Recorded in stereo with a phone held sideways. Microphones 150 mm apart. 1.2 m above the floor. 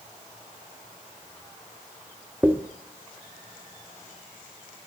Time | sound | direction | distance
2.4 | a dropped coin | 10° right (ahead or behind) | 0.7 m